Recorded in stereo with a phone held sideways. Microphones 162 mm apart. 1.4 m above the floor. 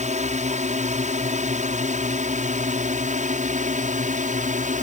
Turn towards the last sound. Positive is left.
turn(degrees=-50)  # may be behind; listen again after turning